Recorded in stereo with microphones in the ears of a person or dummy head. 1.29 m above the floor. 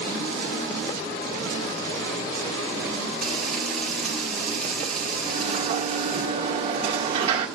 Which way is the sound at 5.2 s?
35° right (ahead or behind).